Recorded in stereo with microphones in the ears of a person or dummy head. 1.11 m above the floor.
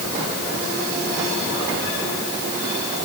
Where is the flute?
No flute in this recording.